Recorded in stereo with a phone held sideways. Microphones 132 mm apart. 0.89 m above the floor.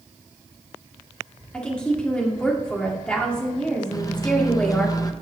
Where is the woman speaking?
10° left (ahead or behind), 1.8 m.